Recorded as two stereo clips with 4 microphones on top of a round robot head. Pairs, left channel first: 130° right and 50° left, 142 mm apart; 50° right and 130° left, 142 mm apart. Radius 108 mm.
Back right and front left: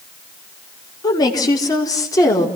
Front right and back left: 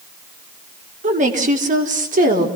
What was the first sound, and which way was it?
A woman speaking, 165° left.